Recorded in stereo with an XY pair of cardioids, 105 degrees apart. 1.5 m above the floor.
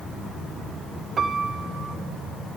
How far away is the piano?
About 0.9 m.